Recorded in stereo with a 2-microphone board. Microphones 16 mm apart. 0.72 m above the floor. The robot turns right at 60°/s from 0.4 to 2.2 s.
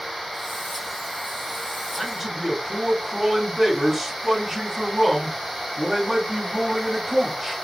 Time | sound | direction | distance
2.0 | a man speaking | 10° left (ahead or behind) | 1.2 m